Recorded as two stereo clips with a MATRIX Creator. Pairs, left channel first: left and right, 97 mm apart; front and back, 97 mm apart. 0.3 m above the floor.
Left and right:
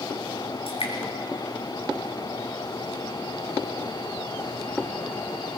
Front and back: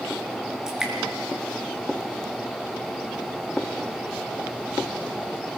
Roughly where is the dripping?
Left.